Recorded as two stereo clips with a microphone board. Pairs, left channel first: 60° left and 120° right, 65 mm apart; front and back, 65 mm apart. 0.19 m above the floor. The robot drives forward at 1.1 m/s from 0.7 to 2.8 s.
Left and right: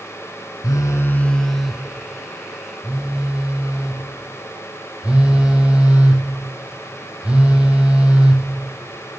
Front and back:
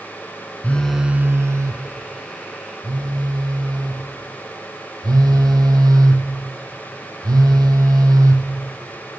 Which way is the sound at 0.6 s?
65° left.